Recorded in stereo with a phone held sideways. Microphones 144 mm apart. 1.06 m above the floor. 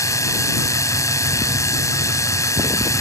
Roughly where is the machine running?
Left.